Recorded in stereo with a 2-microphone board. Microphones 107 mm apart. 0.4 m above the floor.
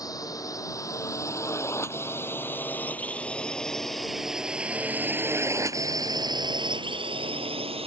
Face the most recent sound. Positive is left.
turn(degrees=-65)  # may be behind; listen again after turning